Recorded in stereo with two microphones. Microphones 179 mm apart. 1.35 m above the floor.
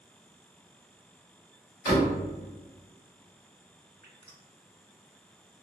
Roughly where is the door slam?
Left.